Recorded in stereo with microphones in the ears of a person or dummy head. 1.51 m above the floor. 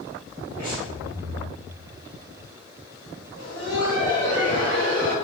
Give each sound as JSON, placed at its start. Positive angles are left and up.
{"t": 0.6, "sound": "breathing", "side_deg": -50, "distance_m": 1.7}
{"t": 3.4, "sound": "laughter", "side_deg": -65, "distance_m": 1.5}